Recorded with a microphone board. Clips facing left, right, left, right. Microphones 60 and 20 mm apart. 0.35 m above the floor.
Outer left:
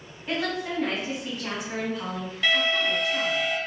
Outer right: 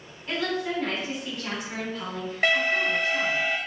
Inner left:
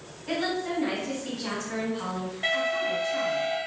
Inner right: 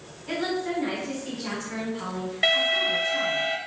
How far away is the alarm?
About 0.8 m.